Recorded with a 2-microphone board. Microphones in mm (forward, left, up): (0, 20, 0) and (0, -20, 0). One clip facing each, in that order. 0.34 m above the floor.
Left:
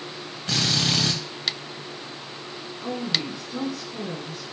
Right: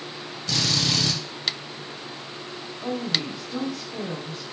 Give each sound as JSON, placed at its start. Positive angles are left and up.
{"t": 0.5, "sound": "a drill", "side_deg": 35, "distance_m": 0.8}
{"t": 2.8, "sound": "a woman speaking", "side_deg": -50, "distance_m": 1.8}